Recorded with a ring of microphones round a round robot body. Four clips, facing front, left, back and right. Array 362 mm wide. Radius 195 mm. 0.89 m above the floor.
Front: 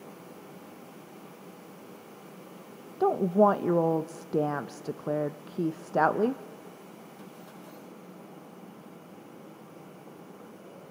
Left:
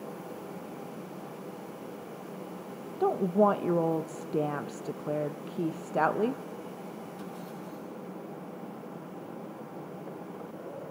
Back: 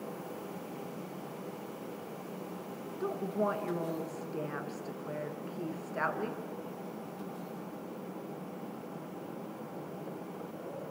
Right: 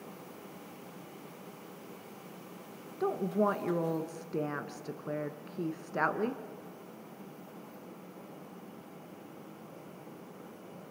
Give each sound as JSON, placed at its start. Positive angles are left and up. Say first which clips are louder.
{"t": 3.0, "sound": "a woman speaking", "louder": "left 5 dB, front 11 dB", "azimuth_deg": 25, "distance_m": 1.0}